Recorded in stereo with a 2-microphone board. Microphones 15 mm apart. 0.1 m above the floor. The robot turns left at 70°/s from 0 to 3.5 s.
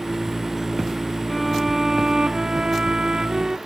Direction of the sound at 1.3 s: 15° left.